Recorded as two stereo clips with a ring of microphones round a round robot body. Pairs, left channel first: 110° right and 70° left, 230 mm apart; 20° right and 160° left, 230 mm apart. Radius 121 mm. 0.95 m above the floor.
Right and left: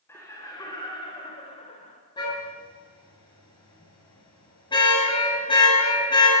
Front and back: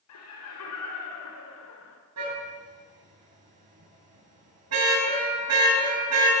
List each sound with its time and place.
0.1 s laughter: 35° right, 4 m; by 2.0 s 50° right, 3.5 m
2.2 s a car horn: 175° left, 8 m